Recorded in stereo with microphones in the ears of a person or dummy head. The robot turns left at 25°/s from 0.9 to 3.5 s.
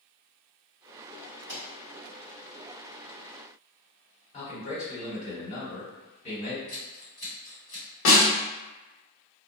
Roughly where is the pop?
Right.